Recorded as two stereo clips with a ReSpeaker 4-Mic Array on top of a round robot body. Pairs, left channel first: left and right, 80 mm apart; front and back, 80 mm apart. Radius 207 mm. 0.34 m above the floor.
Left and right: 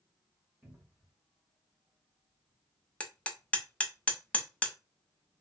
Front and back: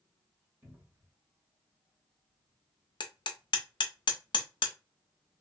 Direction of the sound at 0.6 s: 140° right.